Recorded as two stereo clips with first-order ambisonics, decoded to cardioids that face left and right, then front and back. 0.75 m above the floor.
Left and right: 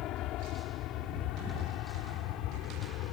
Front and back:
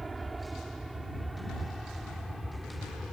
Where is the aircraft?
105° left; by 3.1 s 85° left.